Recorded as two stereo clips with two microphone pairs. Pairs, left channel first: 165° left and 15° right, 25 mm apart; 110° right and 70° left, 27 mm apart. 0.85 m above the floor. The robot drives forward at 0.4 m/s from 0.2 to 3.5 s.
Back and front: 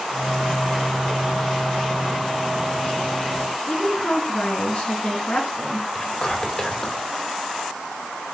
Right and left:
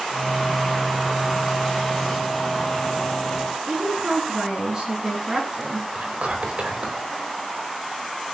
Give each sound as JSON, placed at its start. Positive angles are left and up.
{"t": 3.6, "sound": "a woman speaking", "azimuth_deg": 125, "distance_m": 9.5}
{"t": 6.0, "sound": "whispering", "azimuth_deg": 105, "distance_m": 4.0}